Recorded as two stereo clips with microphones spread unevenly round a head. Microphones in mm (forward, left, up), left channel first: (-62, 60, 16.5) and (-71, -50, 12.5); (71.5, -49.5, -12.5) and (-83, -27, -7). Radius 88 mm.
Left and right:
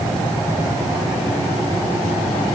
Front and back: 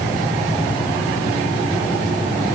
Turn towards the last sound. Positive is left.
No sound to turn to.